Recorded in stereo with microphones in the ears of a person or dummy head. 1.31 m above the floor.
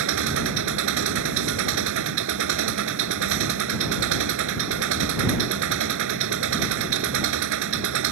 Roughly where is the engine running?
Right.